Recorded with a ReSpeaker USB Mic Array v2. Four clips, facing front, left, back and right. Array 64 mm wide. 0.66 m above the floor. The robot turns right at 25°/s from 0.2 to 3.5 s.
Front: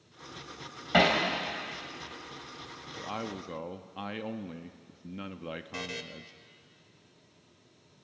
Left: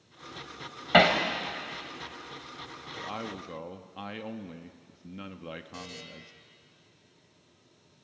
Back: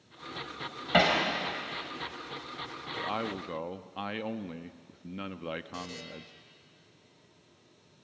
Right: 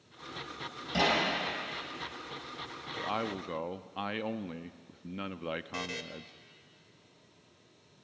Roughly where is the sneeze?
I don't hear a sneeze.